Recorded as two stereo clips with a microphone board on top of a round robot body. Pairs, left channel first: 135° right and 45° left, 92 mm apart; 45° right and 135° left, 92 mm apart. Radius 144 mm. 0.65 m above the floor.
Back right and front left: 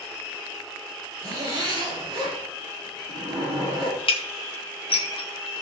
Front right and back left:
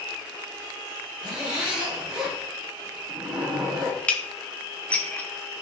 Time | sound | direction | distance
1.2 | a zipper | 55° left | 6 m
4.1 | dishes clattering | 120° right | 1.6 m